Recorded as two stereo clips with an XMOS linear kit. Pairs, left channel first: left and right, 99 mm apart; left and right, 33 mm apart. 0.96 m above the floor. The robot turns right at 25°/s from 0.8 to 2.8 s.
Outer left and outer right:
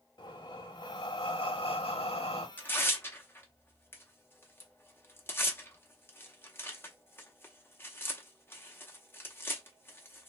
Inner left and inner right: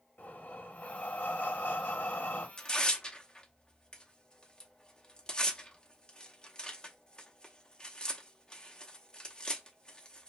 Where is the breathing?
50° left, 0.8 m; by 2.5 s 95° left, 0.8 m.